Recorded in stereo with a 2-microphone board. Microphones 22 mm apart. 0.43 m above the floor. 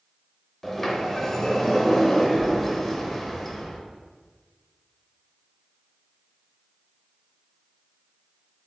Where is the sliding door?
5° left (ahead or behind), 0.8 m.